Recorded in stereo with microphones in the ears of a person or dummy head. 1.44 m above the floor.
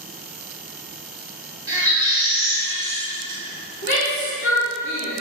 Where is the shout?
50° left (ahead or behind), 1.4 m.